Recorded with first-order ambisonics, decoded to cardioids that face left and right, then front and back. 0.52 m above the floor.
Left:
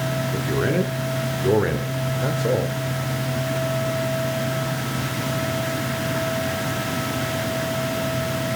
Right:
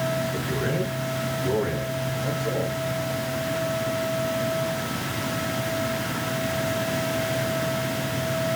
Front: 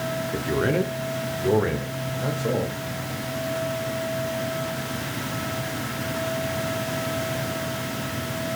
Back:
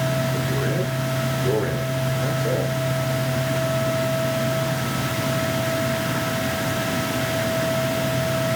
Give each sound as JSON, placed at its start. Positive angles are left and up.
{"t": 0.3, "sound": "a man speaking", "azimuth_deg": 45, "distance_m": 1.0}